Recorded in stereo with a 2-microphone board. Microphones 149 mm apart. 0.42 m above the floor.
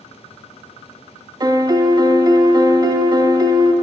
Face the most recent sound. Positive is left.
turn(degrees=-25)  # may be behind; listen again after turning